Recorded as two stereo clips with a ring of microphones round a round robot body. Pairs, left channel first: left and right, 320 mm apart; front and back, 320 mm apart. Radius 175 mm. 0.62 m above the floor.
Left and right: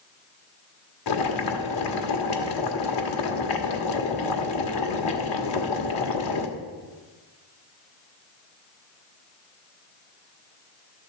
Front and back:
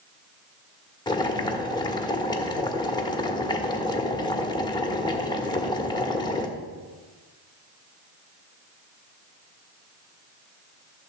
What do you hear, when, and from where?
1.1 s boiling: 75° left, 1.4 m